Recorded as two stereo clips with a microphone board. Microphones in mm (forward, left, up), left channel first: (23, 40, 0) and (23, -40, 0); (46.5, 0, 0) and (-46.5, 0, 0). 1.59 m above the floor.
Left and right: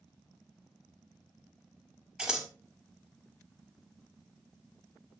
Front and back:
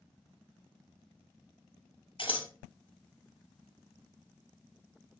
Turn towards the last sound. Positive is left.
turn(degrees=-10)